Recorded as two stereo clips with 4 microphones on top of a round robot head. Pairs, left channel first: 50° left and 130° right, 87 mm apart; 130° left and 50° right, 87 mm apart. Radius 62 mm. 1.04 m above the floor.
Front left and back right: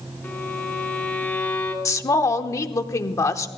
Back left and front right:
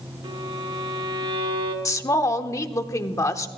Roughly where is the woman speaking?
Left.